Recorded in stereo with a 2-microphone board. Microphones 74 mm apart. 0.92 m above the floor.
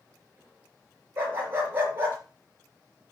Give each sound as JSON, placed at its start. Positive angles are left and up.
{"t": 1.2, "sound": "a dog barking", "side_deg": -25, "distance_m": 4.5}